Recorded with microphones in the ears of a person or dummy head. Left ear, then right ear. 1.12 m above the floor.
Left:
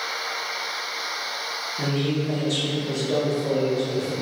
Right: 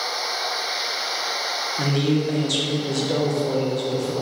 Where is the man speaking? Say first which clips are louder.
Right 3 dB; 15° right (ahead or behind), 0.6 m.